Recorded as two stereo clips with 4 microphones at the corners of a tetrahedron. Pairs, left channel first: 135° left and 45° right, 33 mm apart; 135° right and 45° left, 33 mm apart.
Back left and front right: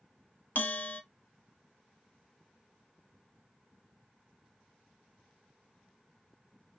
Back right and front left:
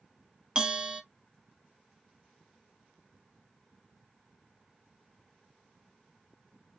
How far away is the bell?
About 0.6 m.